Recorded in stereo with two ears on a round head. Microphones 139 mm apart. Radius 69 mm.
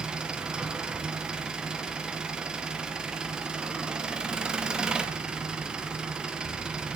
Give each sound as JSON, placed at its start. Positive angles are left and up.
{"t": 0.0, "sound": "an engine running", "side_deg": -5, "distance_m": 0.8}